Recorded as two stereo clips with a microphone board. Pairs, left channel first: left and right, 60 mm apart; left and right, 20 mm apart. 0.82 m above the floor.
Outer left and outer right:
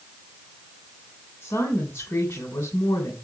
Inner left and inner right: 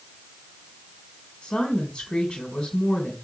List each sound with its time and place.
1.4 s a woman speaking: 65° left (ahead or behind), 2.5 m